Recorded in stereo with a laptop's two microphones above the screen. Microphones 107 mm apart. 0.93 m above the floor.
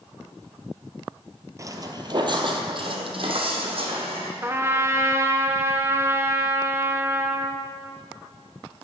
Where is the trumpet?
25° right (ahead or behind), 0.9 m.